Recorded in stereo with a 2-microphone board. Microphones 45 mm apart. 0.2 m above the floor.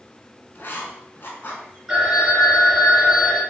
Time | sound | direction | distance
0.6 | writing | 50° left (ahead or behind) | 0.6 m
1.9 | a phone ringing | 20° right (ahead or behind) | 1.6 m